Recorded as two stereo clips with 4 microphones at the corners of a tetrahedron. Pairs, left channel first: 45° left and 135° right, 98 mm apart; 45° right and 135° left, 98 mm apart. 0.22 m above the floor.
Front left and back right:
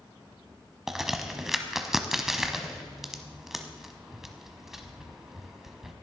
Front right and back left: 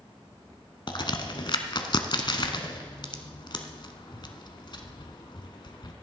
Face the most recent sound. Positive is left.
turn(degrees=-50)